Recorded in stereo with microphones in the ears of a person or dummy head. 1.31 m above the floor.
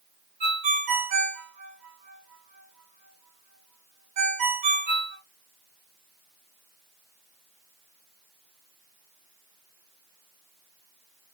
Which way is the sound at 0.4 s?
40° right (ahead or behind).